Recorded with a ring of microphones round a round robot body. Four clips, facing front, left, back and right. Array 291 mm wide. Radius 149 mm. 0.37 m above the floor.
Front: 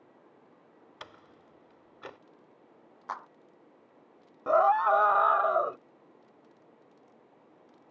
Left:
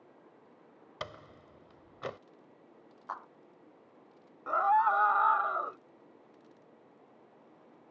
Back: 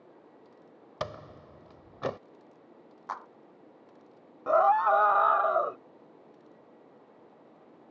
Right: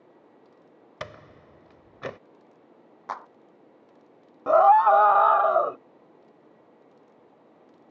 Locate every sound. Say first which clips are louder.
1.0 s a door slam: right 4 dB, back 14 dB; 160° right
3.1 s a clap: right 7 dB, even; 85° right
4.5 s a scream: right 11 dB, even; 85° right